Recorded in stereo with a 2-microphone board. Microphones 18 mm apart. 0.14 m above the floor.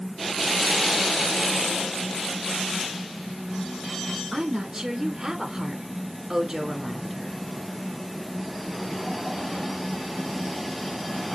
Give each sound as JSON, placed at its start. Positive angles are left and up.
{"t": 4.3, "sound": "a woman speaking", "side_deg": -30, "distance_m": 1.8}